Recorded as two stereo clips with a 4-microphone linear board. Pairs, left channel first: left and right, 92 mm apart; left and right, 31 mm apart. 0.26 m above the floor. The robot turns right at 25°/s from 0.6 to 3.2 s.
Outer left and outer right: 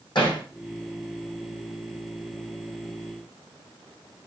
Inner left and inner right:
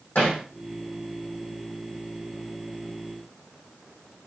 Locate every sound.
0.1 s hammering: 55° left (ahead or behind), 4 m